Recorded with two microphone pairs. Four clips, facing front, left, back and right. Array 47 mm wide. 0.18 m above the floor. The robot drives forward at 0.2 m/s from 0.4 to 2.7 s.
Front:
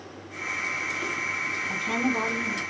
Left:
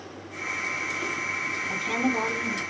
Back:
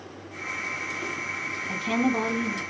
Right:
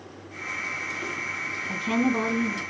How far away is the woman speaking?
About 3 m.